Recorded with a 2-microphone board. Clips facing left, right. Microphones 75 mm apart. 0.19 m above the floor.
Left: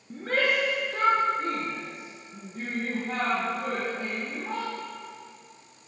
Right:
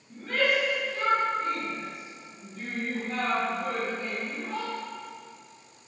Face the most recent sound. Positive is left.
turn(degrees=70)  # may be behind; listen again after turning